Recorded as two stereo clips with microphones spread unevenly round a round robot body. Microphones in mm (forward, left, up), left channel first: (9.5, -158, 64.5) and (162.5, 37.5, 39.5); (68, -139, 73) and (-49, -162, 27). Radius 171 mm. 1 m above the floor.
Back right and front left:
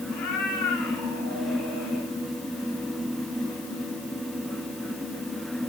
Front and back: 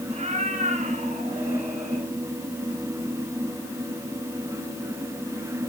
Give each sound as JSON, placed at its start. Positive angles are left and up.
{"t": 0.1, "sound": "a cat meowing", "azimuth_deg": -140, "distance_m": 6.0}